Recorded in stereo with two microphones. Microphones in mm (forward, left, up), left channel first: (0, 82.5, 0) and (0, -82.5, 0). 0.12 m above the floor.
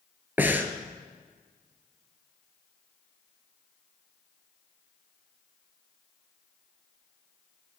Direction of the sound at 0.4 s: 10° right (ahead or behind).